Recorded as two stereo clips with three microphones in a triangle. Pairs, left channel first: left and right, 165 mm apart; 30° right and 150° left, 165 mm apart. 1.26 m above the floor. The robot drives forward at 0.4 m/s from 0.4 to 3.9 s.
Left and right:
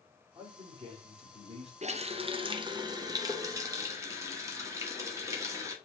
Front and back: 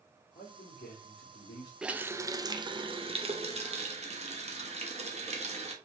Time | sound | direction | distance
0.3 | a man speaking | 35° right | 2.5 m
1.8 | a running tap | 125° right | 0.5 m